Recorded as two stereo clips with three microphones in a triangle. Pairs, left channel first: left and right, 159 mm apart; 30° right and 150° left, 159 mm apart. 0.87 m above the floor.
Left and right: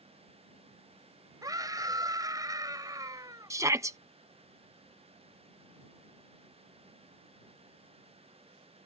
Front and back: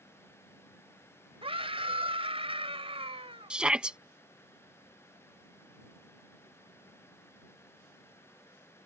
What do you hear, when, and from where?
1.4 s a scream: 155° right
3.5 s a shout: 135° right